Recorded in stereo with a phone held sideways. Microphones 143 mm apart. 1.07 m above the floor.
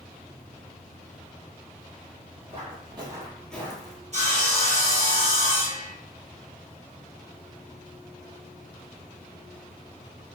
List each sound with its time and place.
2.5 s footsteps: 45° right (ahead or behind), 1.9 m; by 4.0 s 35° left (ahead or behind), 1.3 m
4.1 s sawing: 50° right (ahead or behind), 1.3 m